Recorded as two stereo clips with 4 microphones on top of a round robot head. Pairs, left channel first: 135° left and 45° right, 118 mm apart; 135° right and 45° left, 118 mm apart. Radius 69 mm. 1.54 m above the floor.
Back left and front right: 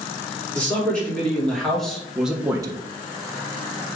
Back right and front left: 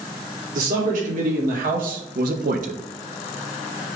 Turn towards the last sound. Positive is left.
turn(degrees=-5)